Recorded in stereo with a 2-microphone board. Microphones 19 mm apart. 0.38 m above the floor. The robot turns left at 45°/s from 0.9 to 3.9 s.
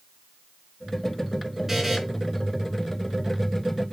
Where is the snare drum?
I don't hear a snare drum.